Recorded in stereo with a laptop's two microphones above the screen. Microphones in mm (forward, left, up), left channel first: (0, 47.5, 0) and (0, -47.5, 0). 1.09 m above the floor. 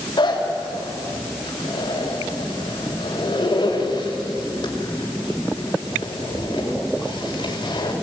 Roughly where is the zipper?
Left.